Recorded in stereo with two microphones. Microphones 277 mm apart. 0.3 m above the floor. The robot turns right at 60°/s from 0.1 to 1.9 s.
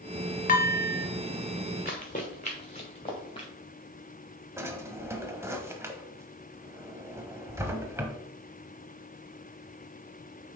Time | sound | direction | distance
0.5 | dishes clattering | 55° left | 0.7 m
1.9 | running footsteps | 35° left (ahead or behind) | 1.6 m
4.6 | a drawer | 10° right (ahead or behind) | 0.9 m